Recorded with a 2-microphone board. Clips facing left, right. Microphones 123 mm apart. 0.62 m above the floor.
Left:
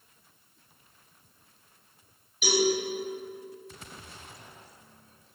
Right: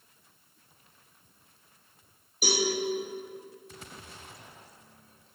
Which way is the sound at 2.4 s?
40° right (ahead or behind).